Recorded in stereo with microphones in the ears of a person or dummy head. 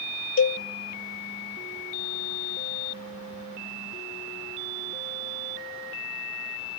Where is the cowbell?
65° left (ahead or behind), 0.7 m.